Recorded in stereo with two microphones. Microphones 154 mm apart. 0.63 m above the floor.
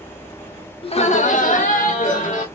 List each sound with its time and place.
0.8 s laughter: 35° left (ahead or behind), 0.7 m; by 2.5 s 50° left (ahead or behind), 1.7 m